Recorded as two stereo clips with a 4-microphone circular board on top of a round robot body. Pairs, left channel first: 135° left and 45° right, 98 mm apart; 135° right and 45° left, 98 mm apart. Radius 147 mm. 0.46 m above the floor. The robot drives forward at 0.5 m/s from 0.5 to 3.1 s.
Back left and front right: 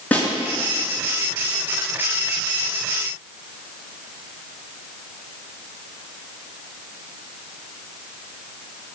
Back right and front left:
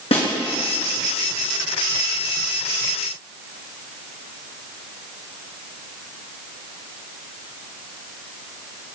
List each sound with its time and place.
0.1 s a snare drum: 150° right, 4.5 m